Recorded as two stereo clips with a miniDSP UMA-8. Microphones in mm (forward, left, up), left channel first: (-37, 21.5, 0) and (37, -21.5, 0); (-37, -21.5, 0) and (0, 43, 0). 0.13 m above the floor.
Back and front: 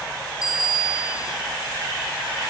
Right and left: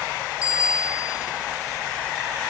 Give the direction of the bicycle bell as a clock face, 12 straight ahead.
1 o'clock.